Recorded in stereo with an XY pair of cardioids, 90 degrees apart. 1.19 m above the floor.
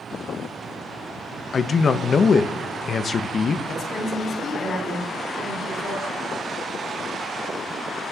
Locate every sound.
1.5 s a man speaking: 45° left, 0.8 m
3.7 s a woman speaking: 60° left, 5 m